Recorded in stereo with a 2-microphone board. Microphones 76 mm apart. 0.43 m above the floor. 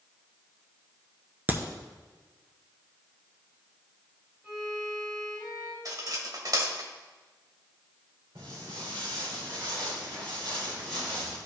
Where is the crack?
25° right (ahead or behind), 0.9 m.